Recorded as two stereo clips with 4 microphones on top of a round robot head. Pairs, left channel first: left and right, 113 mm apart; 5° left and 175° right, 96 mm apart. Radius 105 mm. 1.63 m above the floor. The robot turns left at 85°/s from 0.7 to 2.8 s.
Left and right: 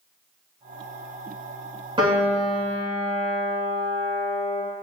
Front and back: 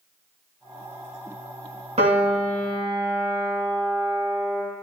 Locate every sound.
2.0 s a piano: 145° right, 2.5 m; by 4.6 s 145° left, 2.5 m